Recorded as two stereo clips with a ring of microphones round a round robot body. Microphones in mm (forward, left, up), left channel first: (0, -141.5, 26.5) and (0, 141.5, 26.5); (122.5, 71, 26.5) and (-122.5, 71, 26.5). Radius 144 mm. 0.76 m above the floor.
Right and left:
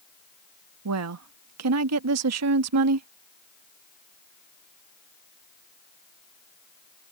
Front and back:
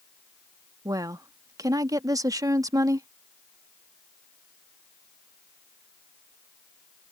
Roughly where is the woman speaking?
Left.